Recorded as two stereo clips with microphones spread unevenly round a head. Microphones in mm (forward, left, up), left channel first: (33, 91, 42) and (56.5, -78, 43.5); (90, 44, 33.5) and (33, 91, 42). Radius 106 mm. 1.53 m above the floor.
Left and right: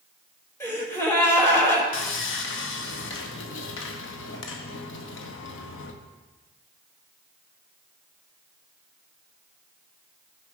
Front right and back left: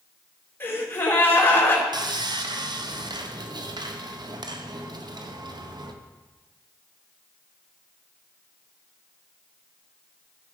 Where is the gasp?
25° left, 3.5 m.